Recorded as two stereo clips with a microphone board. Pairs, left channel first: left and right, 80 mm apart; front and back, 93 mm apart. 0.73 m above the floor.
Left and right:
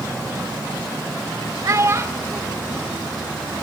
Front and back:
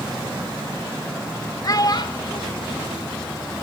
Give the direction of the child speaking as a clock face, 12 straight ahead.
1 o'clock.